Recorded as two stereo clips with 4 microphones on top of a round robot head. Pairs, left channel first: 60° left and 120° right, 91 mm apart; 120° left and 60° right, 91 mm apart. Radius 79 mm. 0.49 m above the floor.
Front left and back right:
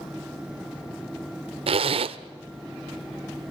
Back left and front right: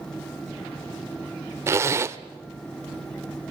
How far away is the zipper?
About 0.7 m.